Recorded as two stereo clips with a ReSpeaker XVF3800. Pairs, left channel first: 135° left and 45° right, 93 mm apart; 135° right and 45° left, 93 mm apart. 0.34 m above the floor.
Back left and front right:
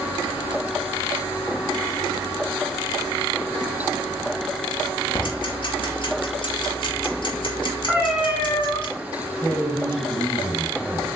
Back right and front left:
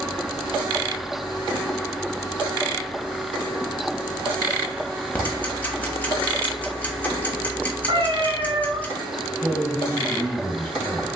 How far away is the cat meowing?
About 1.1 m.